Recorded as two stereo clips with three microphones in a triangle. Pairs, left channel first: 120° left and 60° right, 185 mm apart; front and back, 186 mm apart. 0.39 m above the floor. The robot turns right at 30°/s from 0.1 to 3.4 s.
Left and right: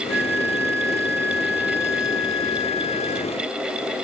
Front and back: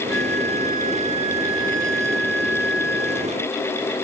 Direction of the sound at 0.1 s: 85° right.